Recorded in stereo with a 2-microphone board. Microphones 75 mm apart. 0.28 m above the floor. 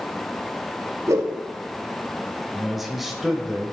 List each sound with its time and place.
1.1 s a whoosh: 45° right (ahead or behind), 1.5 m
2.5 s a man speaking: centre (ahead or behind), 0.9 m